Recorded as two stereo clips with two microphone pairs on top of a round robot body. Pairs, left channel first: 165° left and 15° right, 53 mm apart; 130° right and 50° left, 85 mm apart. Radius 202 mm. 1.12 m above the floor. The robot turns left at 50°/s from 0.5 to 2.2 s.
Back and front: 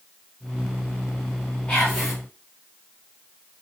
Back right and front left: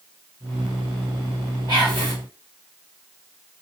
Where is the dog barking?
No dog barking in this recording.